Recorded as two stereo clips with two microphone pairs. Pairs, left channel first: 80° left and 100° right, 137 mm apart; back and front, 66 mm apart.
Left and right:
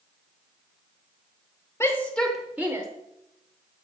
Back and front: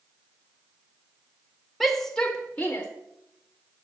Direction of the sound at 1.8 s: 90° left.